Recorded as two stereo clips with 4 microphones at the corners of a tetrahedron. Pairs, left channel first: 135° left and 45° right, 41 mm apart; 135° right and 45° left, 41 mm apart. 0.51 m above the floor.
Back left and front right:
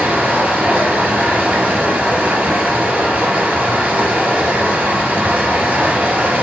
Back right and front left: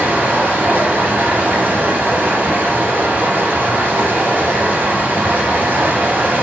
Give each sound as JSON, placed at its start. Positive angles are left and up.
{"t": 0.0, "sound": "running water", "azimuth_deg": 5, "distance_m": 1.0}